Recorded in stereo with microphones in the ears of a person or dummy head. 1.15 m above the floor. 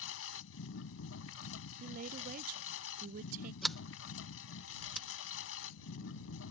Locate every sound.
0.0 s a lawn mower: 75° left (ahead or behind)
1.8 s a woman speaking: 45° right (ahead or behind)
3.6 s a sliding door: centre (ahead or behind)